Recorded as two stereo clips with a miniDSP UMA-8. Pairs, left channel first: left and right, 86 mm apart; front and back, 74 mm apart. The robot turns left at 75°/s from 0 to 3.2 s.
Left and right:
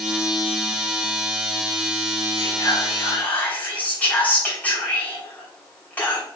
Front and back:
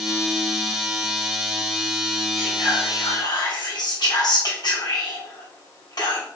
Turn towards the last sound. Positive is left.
turn(degrees=20)